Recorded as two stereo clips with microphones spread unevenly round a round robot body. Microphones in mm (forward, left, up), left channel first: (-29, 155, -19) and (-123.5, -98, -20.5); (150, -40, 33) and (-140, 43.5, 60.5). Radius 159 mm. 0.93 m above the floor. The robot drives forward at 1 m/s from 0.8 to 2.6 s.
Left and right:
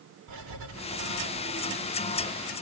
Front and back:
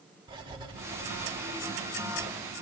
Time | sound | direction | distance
0.3 | writing | 120° right | 4 m